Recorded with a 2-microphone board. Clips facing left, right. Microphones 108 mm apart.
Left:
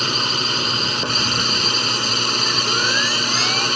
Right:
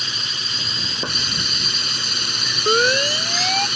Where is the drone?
65° left (ahead or behind).